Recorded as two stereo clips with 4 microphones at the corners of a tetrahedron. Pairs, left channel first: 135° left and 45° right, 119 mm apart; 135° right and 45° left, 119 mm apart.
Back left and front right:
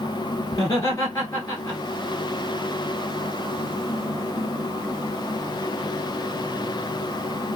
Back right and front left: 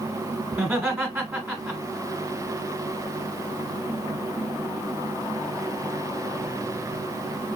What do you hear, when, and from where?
0.5 s laughter: 100° left, 1.4 m